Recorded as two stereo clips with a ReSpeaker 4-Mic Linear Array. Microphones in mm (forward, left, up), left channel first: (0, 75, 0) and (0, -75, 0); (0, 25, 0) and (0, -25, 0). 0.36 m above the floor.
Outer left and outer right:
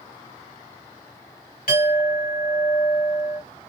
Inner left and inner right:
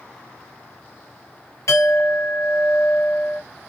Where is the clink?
75° left (ahead or behind), 1.5 m.